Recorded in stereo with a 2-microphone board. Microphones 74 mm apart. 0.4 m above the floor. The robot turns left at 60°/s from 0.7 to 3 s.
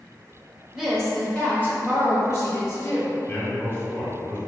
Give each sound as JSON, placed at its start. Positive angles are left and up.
{"t": 0.7, "sound": "a woman speaking", "azimuth_deg": -170, "distance_m": 1.4}
{"t": 3.3, "sound": "a man speaking", "side_deg": 30, "distance_m": 1.1}